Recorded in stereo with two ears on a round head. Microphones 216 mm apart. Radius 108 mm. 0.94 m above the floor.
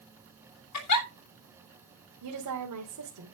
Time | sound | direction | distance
0.7 | a giggle | 70° left (ahead or behind) | 3 m
2.2 | a woman speaking | 80° right | 3 m